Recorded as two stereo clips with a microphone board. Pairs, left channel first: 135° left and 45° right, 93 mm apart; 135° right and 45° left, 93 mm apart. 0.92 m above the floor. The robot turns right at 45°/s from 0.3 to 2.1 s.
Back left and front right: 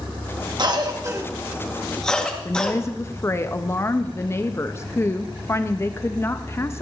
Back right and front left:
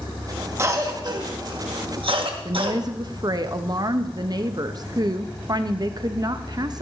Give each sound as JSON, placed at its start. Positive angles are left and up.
{"t": 0.6, "sound": "a cough", "azimuth_deg": -15, "distance_m": 1.4}
{"t": 2.5, "sound": "a woman speaking", "azimuth_deg": 80, "distance_m": 0.7}